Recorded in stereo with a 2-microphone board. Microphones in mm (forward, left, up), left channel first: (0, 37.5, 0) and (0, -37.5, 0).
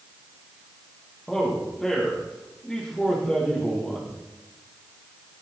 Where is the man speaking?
10° left (ahead or behind), 9 m.